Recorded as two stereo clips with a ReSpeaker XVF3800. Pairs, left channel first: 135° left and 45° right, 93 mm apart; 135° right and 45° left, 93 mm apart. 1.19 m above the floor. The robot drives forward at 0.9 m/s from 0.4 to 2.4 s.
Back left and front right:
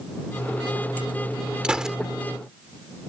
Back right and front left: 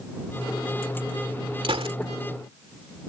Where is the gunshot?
35° left; by 2.0 s 40° left.